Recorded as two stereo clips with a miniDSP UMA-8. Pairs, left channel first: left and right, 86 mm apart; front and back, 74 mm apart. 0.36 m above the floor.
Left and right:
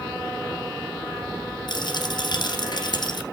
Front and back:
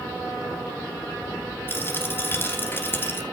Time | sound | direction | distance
1.7 | a dropped coin | 60° left | 2.0 m